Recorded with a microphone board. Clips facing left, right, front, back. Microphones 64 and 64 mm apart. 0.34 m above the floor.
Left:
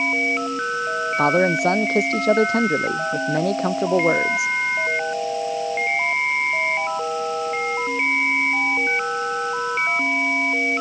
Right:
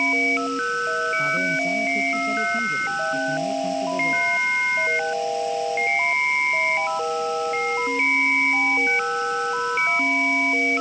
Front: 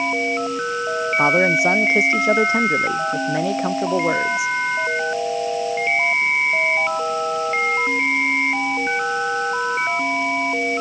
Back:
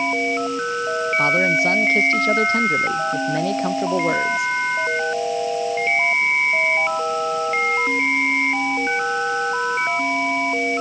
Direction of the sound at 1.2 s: 70° left.